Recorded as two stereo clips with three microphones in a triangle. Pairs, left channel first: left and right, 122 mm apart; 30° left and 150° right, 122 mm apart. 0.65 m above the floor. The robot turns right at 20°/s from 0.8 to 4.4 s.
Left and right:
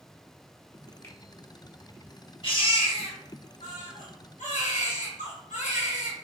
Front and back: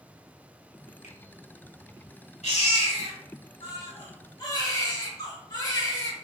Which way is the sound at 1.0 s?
25° left.